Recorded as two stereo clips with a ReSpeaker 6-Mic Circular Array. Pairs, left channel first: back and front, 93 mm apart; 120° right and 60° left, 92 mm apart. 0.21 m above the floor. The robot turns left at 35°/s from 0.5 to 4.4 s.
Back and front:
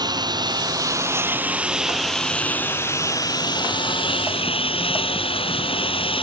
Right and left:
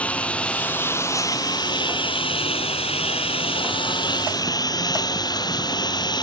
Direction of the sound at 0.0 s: 45° right.